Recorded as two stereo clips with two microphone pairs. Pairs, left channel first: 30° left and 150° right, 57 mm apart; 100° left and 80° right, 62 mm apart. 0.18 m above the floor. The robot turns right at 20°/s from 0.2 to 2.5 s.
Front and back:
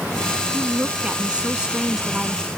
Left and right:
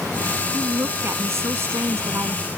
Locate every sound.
0.5 s a woman speaking: 100° right; by 2.5 s 60° right